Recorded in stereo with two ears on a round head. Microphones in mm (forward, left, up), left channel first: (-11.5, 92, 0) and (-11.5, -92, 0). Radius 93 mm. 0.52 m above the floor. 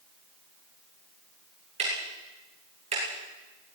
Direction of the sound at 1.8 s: 30° right (ahead or behind).